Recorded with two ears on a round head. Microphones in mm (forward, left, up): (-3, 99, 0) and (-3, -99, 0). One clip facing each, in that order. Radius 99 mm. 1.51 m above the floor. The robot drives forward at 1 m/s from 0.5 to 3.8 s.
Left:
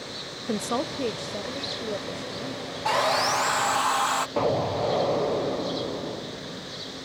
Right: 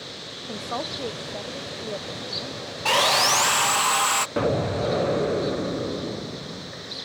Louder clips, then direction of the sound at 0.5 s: Left 5 dB; 60° left (ahead or behind).